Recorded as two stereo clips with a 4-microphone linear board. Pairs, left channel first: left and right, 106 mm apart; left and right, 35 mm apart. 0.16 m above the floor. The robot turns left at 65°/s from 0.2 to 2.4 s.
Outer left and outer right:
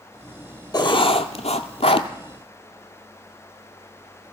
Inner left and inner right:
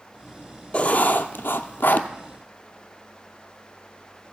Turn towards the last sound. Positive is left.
turn(degrees=30)